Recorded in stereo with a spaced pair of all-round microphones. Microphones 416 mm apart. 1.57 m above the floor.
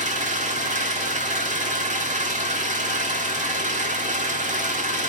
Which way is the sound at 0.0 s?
15° right (ahead or behind).